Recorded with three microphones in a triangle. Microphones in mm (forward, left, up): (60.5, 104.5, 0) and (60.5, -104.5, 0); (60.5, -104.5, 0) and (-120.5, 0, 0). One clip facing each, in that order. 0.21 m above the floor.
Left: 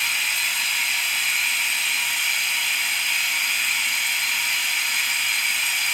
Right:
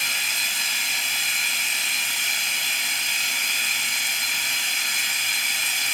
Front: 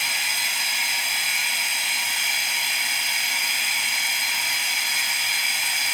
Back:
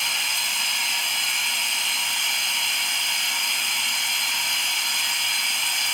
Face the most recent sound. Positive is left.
turn(degrees=-110)